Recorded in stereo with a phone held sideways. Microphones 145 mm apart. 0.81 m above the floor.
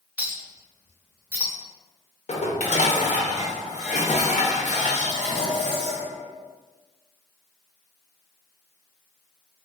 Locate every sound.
0.2 s a clink: 10° right (ahead or behind), 0.8 m
2.3 s dishes clattering: 55° left (ahead or behind), 0.6 m